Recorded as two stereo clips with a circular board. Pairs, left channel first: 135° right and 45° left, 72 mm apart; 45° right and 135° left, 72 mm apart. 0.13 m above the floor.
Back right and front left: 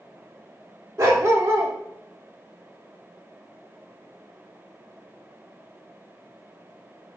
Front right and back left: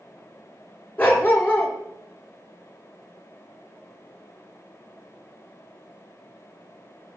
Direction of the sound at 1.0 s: 10° left.